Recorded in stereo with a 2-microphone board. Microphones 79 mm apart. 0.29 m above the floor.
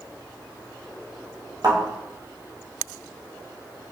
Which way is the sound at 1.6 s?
60° right (ahead or behind).